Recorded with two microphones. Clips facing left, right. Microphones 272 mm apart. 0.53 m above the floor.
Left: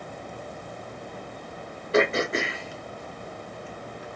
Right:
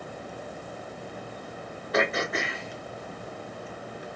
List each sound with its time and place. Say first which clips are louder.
1.9 s throat clearing: left 5 dB; 30° left (ahead or behind), 0.7 m